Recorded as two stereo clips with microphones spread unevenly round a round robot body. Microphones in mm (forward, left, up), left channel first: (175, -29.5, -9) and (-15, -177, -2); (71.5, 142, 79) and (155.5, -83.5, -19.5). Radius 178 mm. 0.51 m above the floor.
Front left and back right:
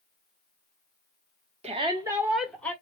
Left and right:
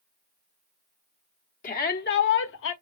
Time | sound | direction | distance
1.6 | a shout | straight behind | 1.0 m